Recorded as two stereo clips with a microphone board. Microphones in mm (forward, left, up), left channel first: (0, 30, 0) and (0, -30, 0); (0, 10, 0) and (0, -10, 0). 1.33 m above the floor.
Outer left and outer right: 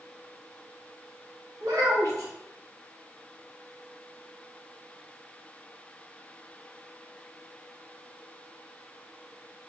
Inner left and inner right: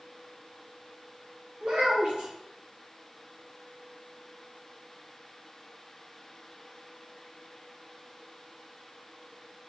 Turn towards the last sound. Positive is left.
turn(degrees=-80)